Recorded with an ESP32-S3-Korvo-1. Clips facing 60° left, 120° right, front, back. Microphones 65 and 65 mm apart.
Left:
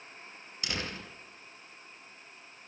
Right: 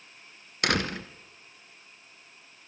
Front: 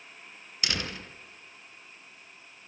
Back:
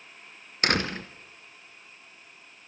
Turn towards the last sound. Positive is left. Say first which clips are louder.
# right 10 dB, back 8 dB
turn(degrees=-140)